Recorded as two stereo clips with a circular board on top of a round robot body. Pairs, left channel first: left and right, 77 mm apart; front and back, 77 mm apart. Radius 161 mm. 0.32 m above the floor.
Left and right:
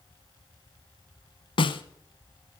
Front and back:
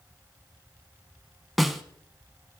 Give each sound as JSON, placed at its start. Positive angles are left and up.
{"t": 1.6, "sound": "a snare drum", "azimuth_deg": 90, "distance_m": 0.7}